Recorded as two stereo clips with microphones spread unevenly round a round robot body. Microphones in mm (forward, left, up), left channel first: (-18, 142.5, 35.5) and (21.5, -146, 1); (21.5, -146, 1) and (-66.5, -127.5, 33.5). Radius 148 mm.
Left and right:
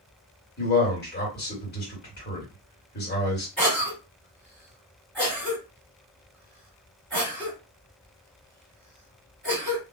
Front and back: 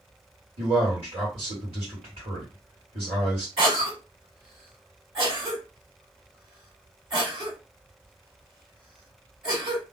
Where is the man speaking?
150° left, 1.7 m.